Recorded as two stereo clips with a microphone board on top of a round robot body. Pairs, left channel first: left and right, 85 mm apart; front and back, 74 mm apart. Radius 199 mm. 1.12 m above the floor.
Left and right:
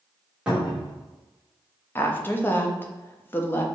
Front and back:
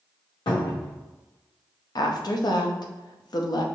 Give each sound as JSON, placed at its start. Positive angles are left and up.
{"t": 0.5, "sound": "a cupboard door", "azimuth_deg": -10, "distance_m": 1.4}
{"t": 1.9, "sound": "a woman speaking", "azimuth_deg": 25, "distance_m": 0.7}